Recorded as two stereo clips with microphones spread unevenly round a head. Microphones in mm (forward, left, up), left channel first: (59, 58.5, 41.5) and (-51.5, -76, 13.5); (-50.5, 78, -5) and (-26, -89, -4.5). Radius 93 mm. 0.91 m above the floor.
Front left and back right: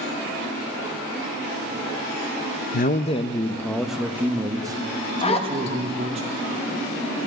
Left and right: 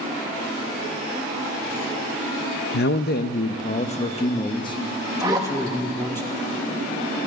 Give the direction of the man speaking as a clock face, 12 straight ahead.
9 o'clock.